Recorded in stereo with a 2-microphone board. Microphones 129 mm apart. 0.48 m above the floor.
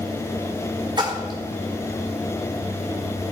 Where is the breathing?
No breathing in this recording.